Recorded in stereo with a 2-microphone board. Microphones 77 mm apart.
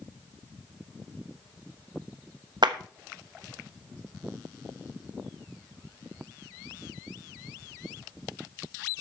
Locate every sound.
2.6 s a clap: 70° right (ahead or behind), 1.0 m